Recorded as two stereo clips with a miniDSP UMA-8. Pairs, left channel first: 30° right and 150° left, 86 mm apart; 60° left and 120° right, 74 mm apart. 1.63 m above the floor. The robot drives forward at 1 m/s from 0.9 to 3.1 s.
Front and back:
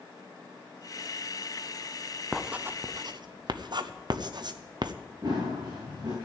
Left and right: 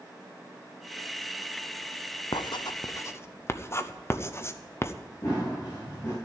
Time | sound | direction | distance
2.3 | writing | 60° left | 0.8 m
5.2 | running footsteps | 110° left | 10 m